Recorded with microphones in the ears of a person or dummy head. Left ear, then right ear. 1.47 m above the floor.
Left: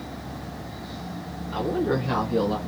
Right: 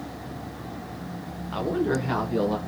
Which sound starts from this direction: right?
A woman speaking, at 1.5 s.